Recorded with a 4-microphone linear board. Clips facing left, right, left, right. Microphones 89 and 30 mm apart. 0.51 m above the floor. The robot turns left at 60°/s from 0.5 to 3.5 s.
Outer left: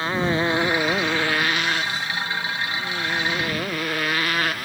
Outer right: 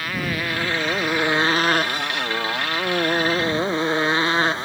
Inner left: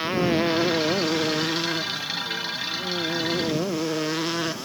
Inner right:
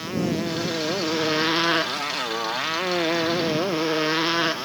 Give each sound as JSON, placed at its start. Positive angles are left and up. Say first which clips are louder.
{"t": 0.0, "sound": "a motorcycle", "louder": "outer left 4 dB, inner left 4 dB", "azimuth_deg": 25}